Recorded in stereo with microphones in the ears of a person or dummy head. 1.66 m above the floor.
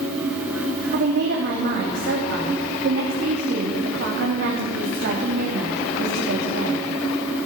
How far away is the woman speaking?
About 3 m.